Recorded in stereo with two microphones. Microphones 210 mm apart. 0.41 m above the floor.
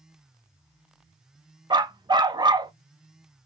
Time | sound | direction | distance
1.7 | a dog barking | 20° right (ahead or behind) | 0.6 m